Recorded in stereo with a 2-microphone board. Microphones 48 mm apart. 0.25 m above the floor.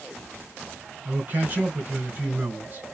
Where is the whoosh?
No whoosh in this recording.